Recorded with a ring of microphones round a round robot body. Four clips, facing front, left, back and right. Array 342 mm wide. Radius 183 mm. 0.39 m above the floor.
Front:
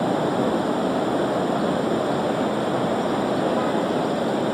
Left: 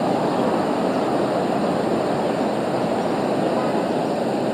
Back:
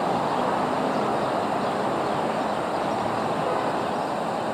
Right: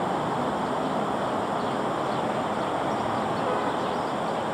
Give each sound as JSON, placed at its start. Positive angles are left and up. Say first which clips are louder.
{"t": 0.0, "sound": "running water", "louder": "left 7 dB, front 2 dB", "azimuth_deg": 50}